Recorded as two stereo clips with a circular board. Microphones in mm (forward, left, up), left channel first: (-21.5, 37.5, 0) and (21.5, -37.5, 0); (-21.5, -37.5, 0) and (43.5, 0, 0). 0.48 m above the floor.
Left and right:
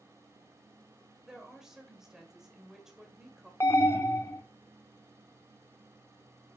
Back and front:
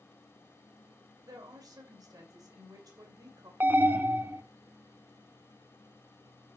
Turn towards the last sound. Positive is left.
turn(degrees=80)